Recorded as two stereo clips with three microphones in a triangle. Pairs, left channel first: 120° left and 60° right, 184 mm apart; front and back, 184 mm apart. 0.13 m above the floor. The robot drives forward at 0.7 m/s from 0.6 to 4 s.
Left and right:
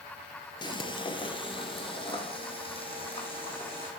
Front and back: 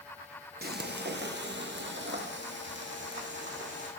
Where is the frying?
Straight behind, 0.7 m.